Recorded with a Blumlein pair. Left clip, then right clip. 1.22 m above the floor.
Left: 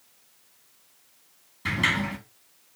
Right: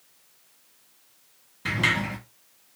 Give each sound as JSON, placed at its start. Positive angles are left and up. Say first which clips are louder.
{"t": 1.6, "sound": "a sliding door", "louder": "right 1 dB", "azimuth_deg": -5, "distance_m": 1.3}